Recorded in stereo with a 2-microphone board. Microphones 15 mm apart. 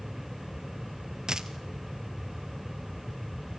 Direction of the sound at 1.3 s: 60° right (ahead or behind).